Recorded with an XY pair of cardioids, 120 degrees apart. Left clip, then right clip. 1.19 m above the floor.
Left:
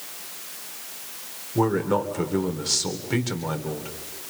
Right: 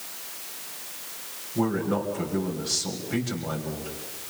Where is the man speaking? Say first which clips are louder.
Left 4 dB; 45° left, 3.5 m.